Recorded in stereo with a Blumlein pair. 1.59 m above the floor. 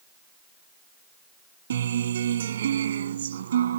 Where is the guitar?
65° right.